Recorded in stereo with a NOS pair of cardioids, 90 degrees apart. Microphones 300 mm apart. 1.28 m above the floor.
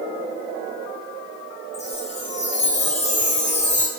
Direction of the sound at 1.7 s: 25° left.